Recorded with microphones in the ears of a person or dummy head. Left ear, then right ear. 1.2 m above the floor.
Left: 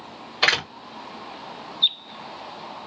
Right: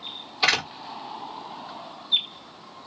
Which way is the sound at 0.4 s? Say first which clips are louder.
Left 2 dB; 35° left (ahead or behind).